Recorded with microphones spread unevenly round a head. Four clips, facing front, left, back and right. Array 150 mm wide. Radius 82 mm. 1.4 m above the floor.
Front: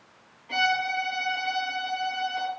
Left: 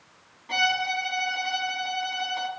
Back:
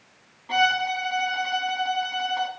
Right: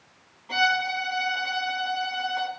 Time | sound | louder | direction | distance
0.5 | a violin | right 2 dB, back 3 dB | straight behind | 1.9 m